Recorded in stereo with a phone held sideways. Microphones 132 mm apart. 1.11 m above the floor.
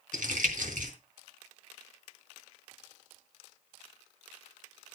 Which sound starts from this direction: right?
Crumpling, at 0.1 s.